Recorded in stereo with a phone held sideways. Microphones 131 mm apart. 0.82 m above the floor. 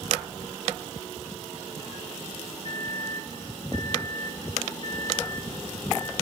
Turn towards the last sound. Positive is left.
turn(degrees=40)  # may be behind; listen again after turning